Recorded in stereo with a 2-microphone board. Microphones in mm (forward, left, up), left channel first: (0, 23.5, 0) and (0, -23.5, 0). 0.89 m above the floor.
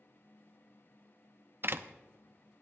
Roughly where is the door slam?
Right.